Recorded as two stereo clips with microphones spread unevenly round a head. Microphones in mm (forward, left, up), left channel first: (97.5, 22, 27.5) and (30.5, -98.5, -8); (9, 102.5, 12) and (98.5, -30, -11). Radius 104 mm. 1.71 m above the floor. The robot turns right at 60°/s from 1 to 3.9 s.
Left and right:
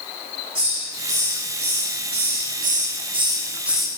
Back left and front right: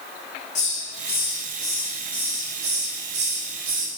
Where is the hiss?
170° left, 1.0 m; by 3.9 s 20° right, 1.0 m.